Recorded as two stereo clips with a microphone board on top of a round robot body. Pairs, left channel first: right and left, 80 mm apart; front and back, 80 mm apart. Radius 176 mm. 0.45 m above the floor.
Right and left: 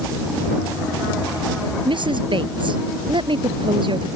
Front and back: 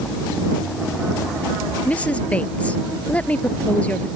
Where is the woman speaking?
75° left.